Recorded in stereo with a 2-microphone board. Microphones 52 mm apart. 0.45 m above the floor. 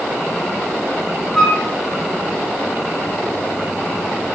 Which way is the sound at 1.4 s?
10° left (ahead or behind).